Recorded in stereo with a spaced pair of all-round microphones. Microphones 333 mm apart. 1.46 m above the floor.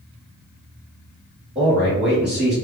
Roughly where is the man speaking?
Centre.